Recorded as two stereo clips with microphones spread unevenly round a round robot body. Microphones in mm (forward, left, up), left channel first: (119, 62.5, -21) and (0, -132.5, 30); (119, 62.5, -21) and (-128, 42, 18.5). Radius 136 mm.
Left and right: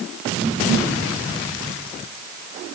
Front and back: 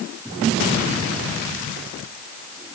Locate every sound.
Only background noise.